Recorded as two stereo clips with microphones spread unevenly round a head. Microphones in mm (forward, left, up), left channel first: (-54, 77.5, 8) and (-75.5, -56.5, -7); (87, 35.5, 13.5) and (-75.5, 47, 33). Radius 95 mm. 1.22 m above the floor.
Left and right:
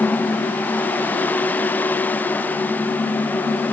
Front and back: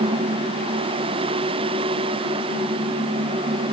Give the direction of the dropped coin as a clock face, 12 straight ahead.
I don't hear a dropped coin.